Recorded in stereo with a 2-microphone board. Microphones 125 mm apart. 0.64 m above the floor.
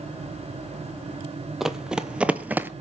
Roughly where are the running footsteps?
Centre.